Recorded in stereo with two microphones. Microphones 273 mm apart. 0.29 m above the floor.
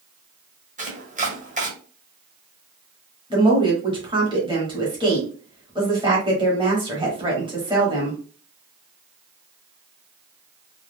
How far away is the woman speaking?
About 1.1 m.